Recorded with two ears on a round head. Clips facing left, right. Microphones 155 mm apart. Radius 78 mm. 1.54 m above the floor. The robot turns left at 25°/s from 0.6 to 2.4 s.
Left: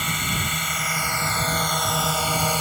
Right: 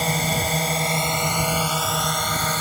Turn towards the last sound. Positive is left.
turn(degrees=170)